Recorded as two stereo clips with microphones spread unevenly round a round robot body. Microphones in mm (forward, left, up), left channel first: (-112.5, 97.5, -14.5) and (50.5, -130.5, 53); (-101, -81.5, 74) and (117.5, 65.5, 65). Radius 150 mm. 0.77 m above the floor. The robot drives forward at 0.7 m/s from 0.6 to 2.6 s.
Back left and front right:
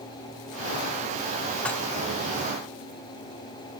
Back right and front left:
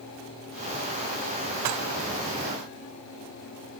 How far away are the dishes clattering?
About 1.2 m.